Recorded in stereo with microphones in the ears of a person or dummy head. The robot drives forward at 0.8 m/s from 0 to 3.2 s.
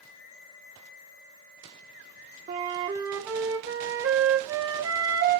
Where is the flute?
30° right (ahead or behind), 0.9 m; by 5.4 s 20° right (ahead or behind), 1.2 m.